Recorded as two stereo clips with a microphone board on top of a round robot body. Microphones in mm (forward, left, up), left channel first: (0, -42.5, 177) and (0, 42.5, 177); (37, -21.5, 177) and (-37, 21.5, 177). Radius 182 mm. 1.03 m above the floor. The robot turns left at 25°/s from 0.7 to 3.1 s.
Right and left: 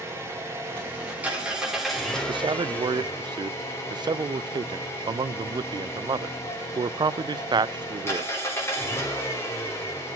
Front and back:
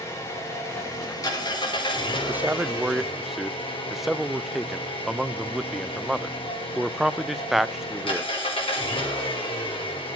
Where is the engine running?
30° left, 3.5 m; by 10.2 s 30° right, 3.5 m.